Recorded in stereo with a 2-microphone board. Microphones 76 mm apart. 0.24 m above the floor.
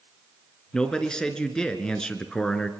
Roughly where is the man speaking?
Centre.